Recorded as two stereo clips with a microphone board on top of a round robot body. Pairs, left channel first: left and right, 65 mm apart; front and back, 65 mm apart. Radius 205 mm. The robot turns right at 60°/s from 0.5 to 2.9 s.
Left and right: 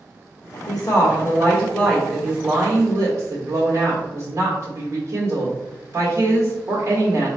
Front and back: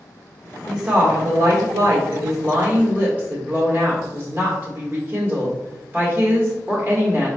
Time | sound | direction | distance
0.7 | a woman speaking | 100° left | 1.3 m